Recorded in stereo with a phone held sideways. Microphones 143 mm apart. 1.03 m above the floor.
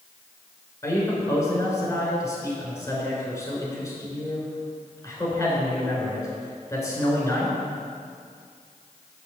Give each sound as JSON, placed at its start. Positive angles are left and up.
{"t": 0.8, "sound": "a man speaking", "side_deg": 20, "distance_m": 3.0}